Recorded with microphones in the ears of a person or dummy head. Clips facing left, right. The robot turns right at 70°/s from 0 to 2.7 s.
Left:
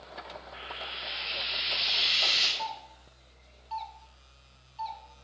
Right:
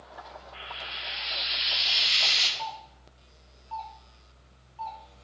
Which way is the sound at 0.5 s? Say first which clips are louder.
Left 1 dB; 175° left.